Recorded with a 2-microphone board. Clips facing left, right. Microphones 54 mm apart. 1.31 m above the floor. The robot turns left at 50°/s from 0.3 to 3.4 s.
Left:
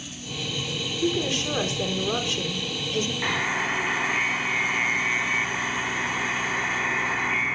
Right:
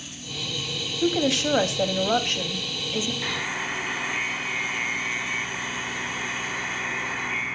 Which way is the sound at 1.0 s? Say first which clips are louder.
Right 3 dB; 65° right.